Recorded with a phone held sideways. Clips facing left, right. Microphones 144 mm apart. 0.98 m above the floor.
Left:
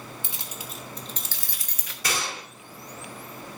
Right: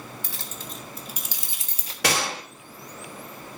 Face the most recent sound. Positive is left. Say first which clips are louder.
# right 6 dB
turn(degrees=-80)